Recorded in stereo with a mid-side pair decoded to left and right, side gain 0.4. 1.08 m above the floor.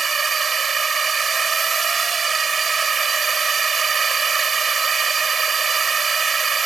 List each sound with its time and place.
0.0 s a drone: 40° right